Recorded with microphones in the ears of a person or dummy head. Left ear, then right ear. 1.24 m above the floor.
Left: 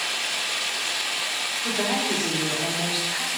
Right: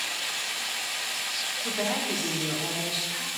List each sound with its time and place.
1.6 s a woman speaking: centre (ahead or behind), 3.5 m